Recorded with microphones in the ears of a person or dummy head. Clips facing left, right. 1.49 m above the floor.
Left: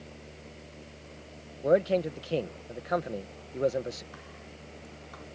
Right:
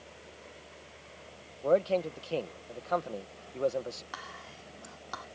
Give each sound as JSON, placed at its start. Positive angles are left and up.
{"t": 0.0, "sound": "a fan", "side_deg": 50}
{"t": 1.6, "sound": "a man speaking", "side_deg": 20}
{"t": 4.1, "sound": "whispering", "side_deg": -75}